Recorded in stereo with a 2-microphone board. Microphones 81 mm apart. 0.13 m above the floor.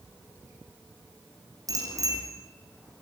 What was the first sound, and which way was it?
A bicycle bell, 45° right (ahead or behind).